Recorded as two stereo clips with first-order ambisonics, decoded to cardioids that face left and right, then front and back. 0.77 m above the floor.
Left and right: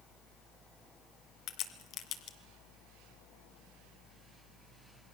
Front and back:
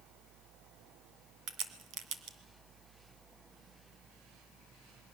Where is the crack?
140° left, 1.8 m.